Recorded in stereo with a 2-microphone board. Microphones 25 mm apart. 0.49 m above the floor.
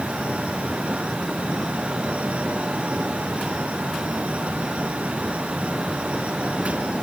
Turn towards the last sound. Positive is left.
No sound to turn to.